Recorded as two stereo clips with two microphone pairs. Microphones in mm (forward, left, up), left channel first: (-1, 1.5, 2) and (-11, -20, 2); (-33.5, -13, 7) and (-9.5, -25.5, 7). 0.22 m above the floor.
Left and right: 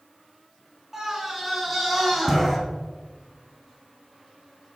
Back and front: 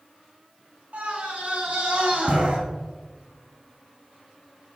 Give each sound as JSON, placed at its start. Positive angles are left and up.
{"t": 0.9, "sound": "a scream", "azimuth_deg": -40, "distance_m": 3.0}